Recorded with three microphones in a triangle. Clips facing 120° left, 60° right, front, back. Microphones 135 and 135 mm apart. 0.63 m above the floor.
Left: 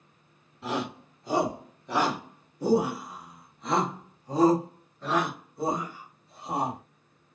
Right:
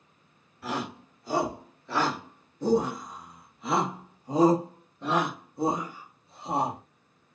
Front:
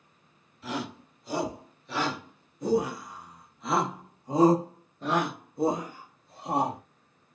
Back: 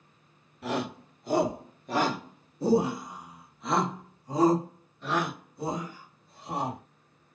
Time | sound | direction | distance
0.6 | a shout | 175° right | 2 m